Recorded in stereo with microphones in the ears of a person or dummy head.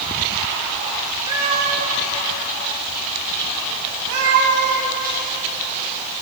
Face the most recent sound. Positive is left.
turn(degrees=-70)  # may be behind; listen again after turning